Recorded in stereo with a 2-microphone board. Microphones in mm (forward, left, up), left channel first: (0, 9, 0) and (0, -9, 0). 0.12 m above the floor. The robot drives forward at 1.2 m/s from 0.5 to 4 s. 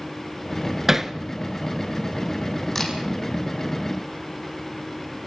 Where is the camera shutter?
15° left (ahead or behind), 4.5 m; by 2.9 s 20° left (ahead or behind), 4.5 m.